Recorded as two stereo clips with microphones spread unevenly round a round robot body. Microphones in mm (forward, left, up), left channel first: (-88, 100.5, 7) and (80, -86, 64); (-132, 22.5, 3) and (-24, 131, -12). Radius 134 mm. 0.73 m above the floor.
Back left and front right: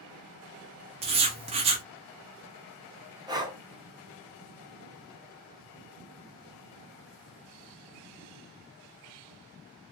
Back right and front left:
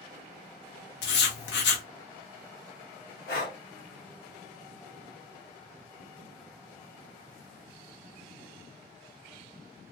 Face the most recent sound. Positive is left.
turn(degrees=-130)